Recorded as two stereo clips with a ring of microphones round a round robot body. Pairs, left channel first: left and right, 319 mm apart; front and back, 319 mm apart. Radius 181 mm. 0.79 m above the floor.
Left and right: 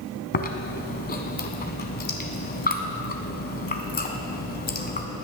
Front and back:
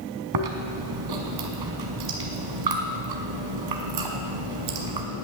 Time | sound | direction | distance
0.3 | chewing | 150° left | 1.6 m